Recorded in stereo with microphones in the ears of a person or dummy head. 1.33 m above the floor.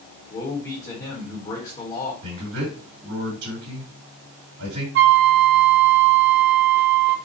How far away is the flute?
About 0.6 m.